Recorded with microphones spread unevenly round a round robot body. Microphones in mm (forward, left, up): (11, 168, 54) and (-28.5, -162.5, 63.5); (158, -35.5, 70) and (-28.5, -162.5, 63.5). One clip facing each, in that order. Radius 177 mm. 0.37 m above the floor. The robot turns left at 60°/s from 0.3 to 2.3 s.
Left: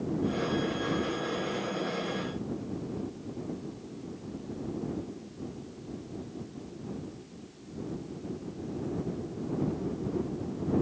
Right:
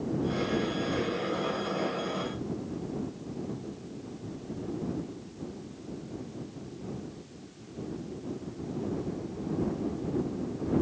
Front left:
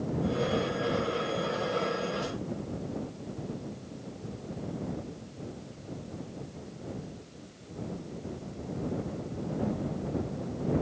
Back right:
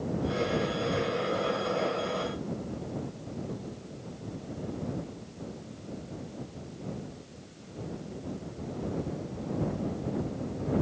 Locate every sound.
Only background noise.